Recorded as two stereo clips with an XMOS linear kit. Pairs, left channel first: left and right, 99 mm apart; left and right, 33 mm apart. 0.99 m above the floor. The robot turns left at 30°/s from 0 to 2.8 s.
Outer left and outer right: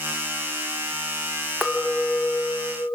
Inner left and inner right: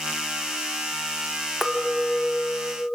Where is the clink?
175° right, 1.4 m; by 2.9 s 150° left, 1.4 m.